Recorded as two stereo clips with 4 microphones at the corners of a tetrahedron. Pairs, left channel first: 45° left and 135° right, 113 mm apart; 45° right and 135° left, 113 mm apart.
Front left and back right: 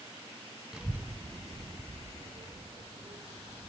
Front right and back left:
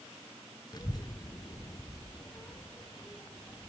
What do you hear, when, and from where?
0.7 s a child speaking: 55° right, 0.9 m; by 3.7 s 115° right, 3.5 m